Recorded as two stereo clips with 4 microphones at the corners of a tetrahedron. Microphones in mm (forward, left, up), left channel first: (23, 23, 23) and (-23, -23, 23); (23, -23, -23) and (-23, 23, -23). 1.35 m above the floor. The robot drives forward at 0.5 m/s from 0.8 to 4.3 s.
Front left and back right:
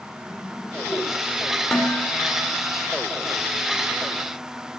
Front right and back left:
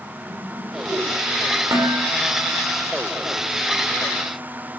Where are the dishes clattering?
125° left, 3.5 m; by 2.5 s 130° left, 4 m.